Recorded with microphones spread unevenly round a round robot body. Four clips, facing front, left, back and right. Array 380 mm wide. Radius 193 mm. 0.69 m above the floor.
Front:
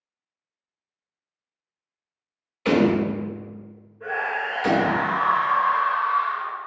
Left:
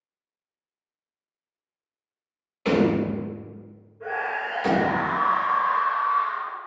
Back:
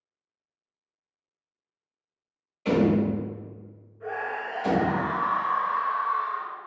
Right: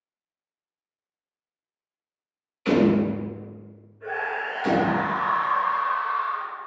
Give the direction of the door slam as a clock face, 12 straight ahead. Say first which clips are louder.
Right 1 dB, front 3 dB; 10 o'clock.